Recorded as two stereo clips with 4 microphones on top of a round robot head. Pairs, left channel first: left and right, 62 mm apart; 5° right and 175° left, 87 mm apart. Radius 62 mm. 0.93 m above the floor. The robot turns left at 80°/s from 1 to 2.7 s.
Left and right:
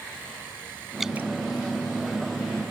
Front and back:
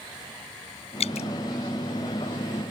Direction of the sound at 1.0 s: Straight ahead.